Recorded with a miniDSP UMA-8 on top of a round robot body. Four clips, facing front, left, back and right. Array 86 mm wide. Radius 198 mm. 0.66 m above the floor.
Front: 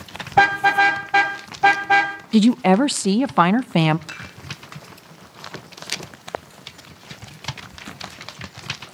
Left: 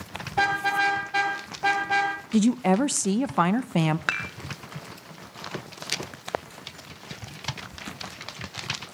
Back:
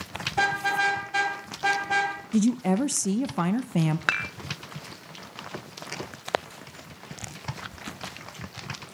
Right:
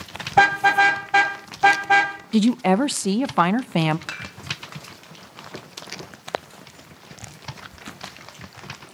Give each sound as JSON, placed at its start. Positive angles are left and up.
{"t": 0.3, "sound": "a car horn", "azimuth_deg": -45, "distance_m": 2.5}
{"t": 2.3, "sound": "a woman speaking", "azimuth_deg": -20, "distance_m": 0.5}
{"t": 4.1, "sound": "dishes clattering", "azimuth_deg": 150, "distance_m": 1.1}